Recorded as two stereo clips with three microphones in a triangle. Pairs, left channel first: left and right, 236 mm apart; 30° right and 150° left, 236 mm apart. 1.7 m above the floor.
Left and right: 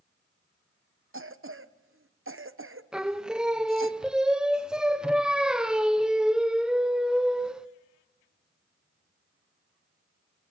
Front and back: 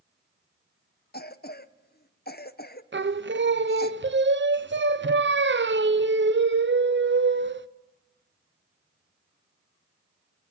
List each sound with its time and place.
1.1 s a cough: 75° right, 0.9 m
2.9 s singing: 175° right, 0.6 m